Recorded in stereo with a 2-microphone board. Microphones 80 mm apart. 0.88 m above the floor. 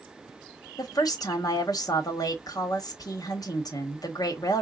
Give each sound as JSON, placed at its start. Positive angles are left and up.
{"t": 0.8, "sound": "a woman speaking", "side_deg": 50, "distance_m": 1.2}